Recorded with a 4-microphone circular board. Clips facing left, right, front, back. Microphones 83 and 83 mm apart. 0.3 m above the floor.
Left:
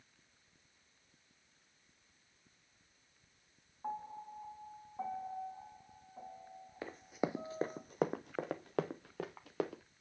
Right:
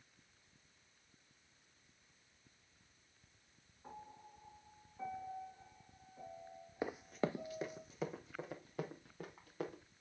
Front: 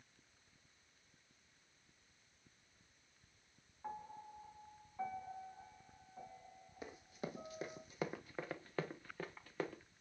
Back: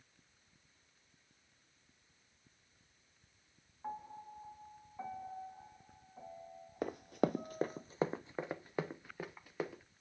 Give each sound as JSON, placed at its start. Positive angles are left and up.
{"t": 3.8, "sound": "a piano", "azimuth_deg": 100, "distance_m": 3.0}
{"t": 6.8, "sound": "running footsteps", "azimuth_deg": -160, "distance_m": 0.5}